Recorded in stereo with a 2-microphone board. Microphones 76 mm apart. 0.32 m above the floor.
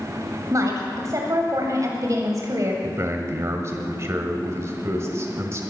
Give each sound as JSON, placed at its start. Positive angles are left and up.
{"t": 0.5, "sound": "a woman speaking", "side_deg": -50, "distance_m": 1.9}
{"t": 2.8, "sound": "a man speaking", "side_deg": -40, "distance_m": 1.8}